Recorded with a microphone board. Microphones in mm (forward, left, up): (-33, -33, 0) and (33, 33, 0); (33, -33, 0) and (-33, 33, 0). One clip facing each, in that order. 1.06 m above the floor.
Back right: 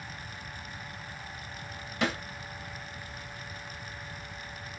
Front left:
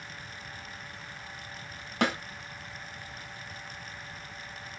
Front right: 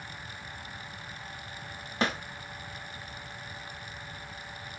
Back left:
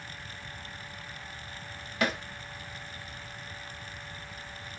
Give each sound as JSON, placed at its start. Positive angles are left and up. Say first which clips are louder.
{"t": 2.0, "sound": "a snare drum", "louder": "front left 2 dB, even", "azimuth_deg": 15, "distance_m": 1.4}